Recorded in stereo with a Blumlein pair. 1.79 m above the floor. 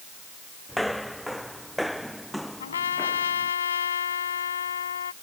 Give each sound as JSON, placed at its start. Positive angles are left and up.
{"t": 0.7, "sound": "footsteps", "azimuth_deg": 0}
{"t": 2.6, "sound": "a trumpet", "azimuth_deg": 65}